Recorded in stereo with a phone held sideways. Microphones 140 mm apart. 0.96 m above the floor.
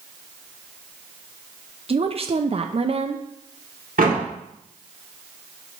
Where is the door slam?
85° right, 2.0 m.